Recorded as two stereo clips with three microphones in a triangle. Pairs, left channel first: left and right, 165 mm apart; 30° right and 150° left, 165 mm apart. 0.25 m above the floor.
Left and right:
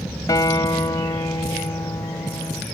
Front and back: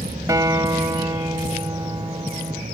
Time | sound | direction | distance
0.3 | a guitar | 115° left | ?